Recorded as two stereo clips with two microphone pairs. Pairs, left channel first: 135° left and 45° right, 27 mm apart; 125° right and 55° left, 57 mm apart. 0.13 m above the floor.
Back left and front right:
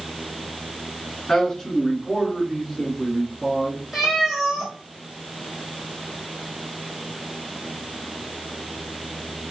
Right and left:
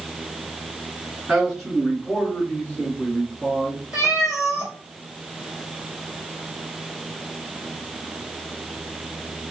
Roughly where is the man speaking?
Behind left.